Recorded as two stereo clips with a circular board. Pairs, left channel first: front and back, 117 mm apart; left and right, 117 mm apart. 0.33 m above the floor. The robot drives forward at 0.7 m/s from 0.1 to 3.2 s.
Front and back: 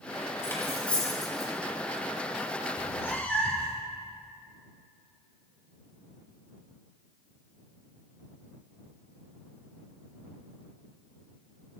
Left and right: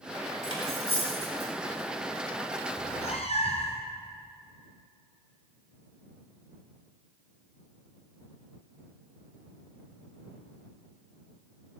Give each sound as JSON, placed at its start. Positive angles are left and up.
{"t": 0.4, "sound": "cutlery clinking", "azimuth_deg": 65, "distance_m": 1.6}
{"t": 2.8, "sound": "a cat meowing", "azimuth_deg": 60, "distance_m": 1.1}